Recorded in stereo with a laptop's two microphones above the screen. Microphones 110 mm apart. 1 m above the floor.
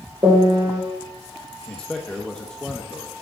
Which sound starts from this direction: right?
A piano, at 0.2 s.